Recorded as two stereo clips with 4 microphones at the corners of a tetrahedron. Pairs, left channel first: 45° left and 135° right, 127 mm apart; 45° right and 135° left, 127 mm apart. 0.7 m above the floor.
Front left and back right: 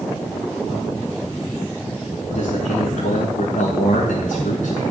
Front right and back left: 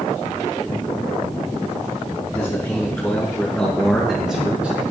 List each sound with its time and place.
2.3 s a man speaking: 15° left, 5 m; by 4.8 s 55° left, 4 m